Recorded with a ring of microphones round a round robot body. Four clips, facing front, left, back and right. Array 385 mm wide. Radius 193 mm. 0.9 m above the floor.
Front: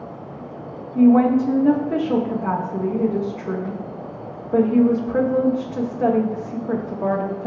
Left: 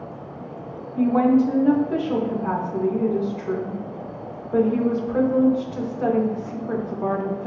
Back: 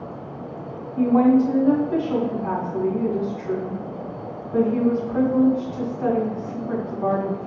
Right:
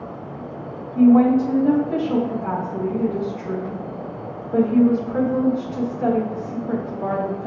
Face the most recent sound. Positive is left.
turn(degrees=10)